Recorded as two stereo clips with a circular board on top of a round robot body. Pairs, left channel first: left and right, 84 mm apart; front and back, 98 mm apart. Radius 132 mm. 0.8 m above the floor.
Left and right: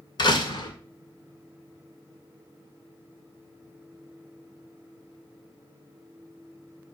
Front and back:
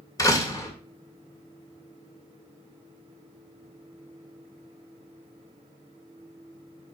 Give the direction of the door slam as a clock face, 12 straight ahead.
10 o'clock.